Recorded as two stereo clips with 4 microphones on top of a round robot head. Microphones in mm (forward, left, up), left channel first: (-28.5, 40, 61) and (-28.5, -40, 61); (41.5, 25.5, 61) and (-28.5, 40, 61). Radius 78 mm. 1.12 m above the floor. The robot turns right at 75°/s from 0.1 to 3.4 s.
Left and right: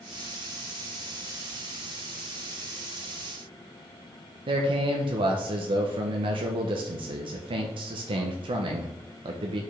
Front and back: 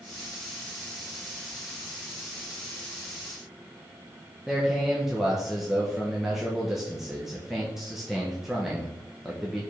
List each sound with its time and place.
4.5 s a man speaking: 105° right, 0.5 m